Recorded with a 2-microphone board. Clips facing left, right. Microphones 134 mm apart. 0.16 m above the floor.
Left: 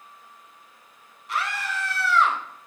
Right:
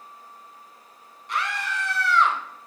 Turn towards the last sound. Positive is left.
turn(degrees=0)  # may be behind; listen again after turning